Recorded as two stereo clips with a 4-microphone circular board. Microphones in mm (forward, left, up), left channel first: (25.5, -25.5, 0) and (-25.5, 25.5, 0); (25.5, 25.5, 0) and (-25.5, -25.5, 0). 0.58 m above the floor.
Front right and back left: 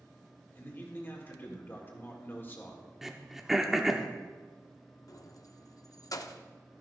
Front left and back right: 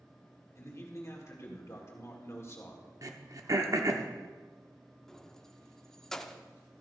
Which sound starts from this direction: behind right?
Throat clearing, at 3.0 s.